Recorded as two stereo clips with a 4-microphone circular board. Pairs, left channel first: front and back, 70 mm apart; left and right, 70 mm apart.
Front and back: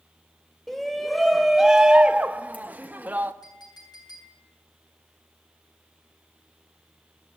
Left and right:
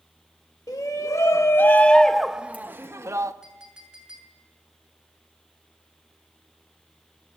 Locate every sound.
0.7 s a shout: 85° left, 1.1 m; by 3.3 s 120° right, 1.0 m
3.4 s a clink: 10° right, 7.5 m